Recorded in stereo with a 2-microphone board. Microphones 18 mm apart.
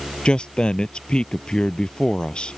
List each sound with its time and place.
0.2 s a man speaking: 60° left (ahead or behind)